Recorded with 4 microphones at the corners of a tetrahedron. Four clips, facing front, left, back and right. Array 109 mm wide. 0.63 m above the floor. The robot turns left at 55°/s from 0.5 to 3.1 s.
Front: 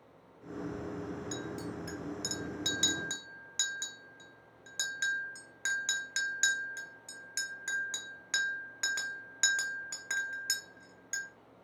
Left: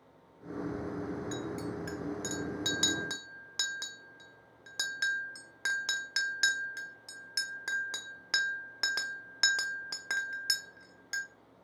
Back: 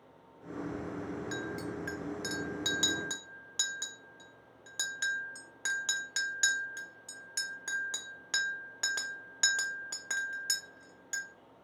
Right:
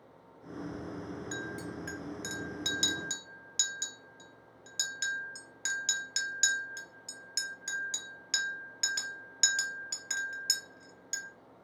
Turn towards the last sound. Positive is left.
turn(degrees=110)